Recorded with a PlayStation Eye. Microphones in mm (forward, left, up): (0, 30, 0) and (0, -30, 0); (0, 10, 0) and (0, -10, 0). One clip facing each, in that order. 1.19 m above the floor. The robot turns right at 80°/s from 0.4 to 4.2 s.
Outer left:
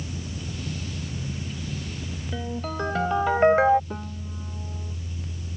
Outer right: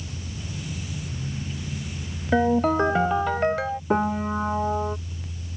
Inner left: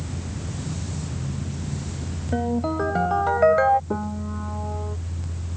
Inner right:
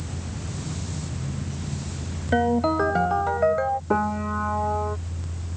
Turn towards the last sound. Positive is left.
turn(degrees=-75)  # may be behind; listen again after turning